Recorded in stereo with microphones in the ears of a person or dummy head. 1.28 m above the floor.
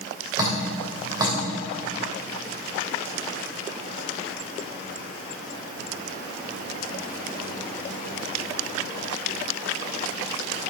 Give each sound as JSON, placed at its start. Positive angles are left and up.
{"t": 0.4, "sound": "dripping", "side_deg": -25, "distance_m": 2.5}